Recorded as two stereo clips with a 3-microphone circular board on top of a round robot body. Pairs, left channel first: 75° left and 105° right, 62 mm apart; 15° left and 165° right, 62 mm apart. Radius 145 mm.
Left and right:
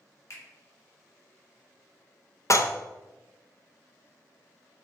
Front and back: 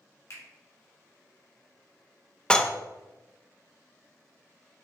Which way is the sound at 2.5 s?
90° left.